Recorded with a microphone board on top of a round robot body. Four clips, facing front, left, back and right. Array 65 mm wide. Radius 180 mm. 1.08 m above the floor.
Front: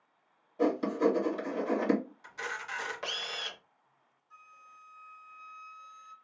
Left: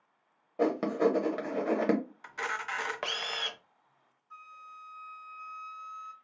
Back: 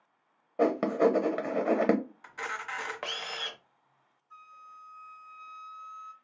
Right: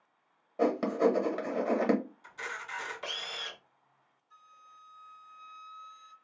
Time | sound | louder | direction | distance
0.6 | writing | even, back 3 dB | straight behind | 1.0 m
2.2 | a camera shutter | left 5 dB, back 2 dB | 120° left | 0.7 m
4.3 | a flute | left 8 dB, back 5 dB | 100° left | 1.0 m